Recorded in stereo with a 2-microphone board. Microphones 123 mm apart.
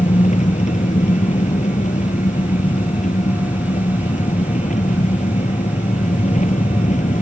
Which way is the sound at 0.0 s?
85° left.